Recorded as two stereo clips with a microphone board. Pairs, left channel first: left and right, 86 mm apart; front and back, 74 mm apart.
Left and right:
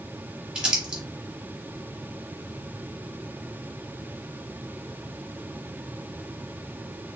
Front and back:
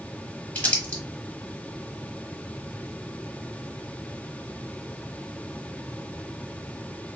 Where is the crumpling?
25° right, 1.1 m.